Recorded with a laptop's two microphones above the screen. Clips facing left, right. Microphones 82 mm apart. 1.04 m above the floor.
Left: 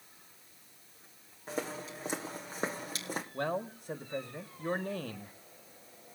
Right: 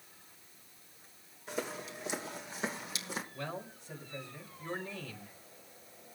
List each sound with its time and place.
1.5 s footsteps: 40° left (ahead or behind), 3 m; by 3.2 s 45° left (ahead or behind), 2.5 m
3.3 s a man speaking: 50° left (ahead or behind), 1.8 m